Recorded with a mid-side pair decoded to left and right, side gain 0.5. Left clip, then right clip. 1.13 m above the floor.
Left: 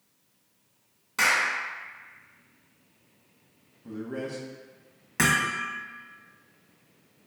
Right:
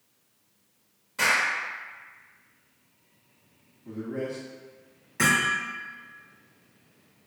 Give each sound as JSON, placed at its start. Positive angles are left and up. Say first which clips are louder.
{"t": 1.2, "sound": "a clap", "louder": "even", "azimuth_deg": 70, "distance_m": 1.1}
{"t": 3.9, "sound": "a man speaking", "louder": "right 2 dB", "azimuth_deg": 65, "distance_m": 0.9}
{"t": 5.2, "sound": "hammering", "louder": "right 1 dB", "azimuth_deg": 60, "distance_m": 0.8}